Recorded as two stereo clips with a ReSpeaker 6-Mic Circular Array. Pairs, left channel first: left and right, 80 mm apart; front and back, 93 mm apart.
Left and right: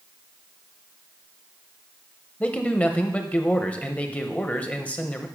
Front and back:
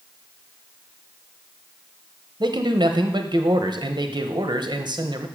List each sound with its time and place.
2.4 s a man speaking: 160° left, 0.8 m